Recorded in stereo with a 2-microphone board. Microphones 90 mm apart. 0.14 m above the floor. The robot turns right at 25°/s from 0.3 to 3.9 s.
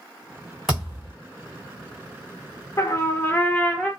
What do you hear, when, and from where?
0.7 s a thud: 5° right (ahead or behind), 2.5 m; by 1.1 s 5° left (ahead or behind), 2.5 m
2.8 s a trumpet: 35° left (ahead or behind), 0.8 m; by 3.9 s 10° left (ahead or behind), 0.8 m